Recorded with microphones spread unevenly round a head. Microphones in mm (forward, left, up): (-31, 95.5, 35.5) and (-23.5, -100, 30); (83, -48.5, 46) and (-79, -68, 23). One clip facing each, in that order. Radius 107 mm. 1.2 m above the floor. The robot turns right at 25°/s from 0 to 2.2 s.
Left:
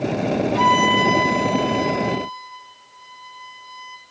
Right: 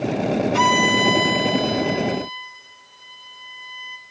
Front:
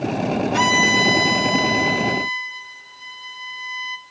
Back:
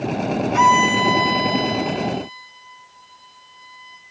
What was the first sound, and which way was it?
A violin, 50° right.